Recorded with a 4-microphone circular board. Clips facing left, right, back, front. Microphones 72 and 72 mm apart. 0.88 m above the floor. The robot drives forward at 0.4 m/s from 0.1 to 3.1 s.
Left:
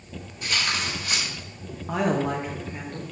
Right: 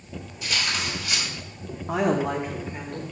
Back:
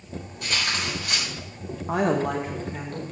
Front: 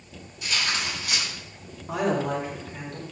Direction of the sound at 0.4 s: 135° left.